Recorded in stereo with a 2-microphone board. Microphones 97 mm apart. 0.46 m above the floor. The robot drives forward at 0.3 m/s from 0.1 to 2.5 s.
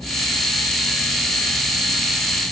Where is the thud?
No thud in this recording.